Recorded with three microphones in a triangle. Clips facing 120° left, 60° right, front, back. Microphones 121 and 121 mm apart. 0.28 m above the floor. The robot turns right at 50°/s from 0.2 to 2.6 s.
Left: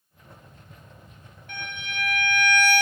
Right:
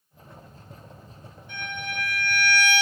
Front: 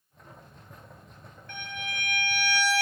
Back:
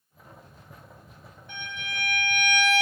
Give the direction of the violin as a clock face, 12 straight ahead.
8 o'clock.